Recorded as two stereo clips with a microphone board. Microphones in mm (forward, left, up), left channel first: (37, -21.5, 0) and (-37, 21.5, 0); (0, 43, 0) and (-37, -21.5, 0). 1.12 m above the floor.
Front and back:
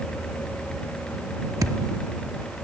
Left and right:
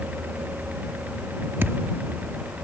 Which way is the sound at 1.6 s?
175° right.